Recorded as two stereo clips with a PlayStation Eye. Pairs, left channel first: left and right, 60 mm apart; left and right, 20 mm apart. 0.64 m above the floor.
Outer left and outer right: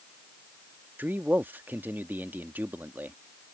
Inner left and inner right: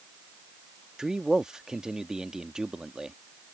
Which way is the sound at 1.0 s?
35° right (ahead or behind).